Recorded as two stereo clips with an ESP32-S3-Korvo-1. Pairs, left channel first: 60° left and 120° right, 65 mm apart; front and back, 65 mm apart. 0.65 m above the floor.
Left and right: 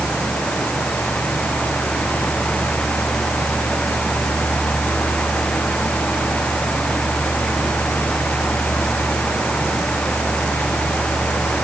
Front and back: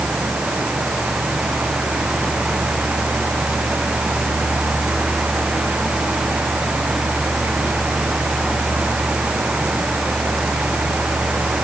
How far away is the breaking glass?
I don't hear breaking glass.